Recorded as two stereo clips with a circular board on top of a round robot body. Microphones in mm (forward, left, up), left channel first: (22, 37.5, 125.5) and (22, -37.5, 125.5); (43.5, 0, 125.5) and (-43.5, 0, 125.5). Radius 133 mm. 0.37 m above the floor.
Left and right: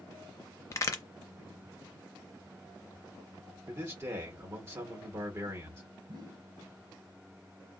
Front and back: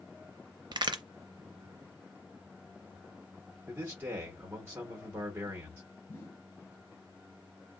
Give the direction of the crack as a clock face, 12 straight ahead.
7 o'clock.